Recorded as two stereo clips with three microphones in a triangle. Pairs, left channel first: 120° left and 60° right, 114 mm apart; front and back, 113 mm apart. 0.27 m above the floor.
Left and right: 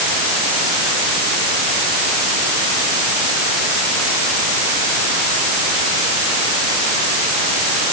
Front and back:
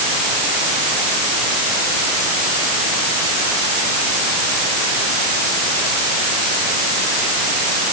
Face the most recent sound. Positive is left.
No sound to turn to.